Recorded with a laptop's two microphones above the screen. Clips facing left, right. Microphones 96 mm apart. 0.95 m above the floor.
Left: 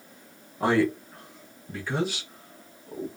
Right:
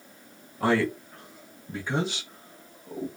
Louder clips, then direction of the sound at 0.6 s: Left 1 dB; 20° left (ahead or behind).